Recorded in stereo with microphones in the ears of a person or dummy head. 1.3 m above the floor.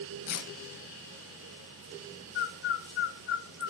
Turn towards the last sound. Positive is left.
turn(degrees=65)  # may be behind; listen again after turning